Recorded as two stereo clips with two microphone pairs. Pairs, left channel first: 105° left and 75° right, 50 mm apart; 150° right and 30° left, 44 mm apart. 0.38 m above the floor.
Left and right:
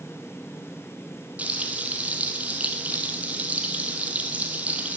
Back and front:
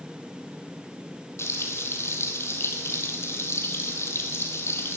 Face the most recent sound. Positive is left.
turn(degrees=-135)